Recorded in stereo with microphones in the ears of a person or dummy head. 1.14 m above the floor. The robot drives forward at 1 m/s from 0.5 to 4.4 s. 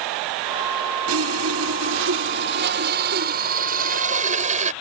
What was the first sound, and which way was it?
Sawing, 85° right.